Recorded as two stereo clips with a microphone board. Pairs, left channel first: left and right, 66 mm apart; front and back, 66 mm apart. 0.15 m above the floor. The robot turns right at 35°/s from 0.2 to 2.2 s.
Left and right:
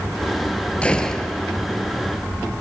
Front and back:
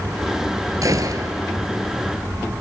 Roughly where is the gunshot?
Behind.